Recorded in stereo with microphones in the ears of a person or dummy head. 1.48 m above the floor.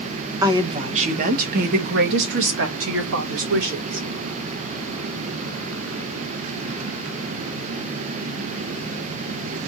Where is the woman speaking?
25° right (ahead or behind), 1.1 m; by 4.1 s 80° right, 2 m.